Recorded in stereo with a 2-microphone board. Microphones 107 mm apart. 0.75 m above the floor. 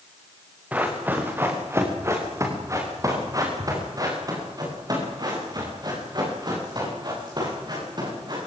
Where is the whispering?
No whispering in this recording.